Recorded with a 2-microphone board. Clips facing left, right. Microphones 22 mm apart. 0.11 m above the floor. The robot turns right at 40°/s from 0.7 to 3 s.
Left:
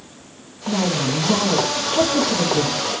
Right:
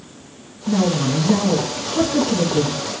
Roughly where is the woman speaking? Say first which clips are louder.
Right 2 dB; centre.